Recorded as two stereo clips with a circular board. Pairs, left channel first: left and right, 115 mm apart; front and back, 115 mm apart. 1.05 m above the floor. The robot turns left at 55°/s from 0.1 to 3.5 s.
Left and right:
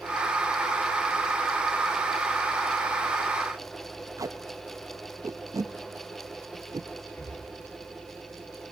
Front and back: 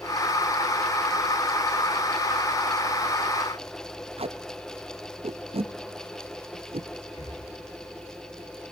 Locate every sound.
4.2 s tape being pulled: 150° right, 0.6 m
7.1 s breathing: 15° left, 4 m